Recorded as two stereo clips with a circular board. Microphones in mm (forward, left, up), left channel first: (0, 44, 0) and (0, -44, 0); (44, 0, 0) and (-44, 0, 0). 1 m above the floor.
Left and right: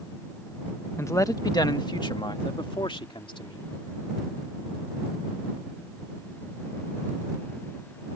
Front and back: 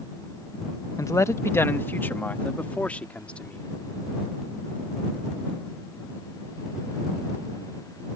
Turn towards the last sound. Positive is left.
turn(degrees=75)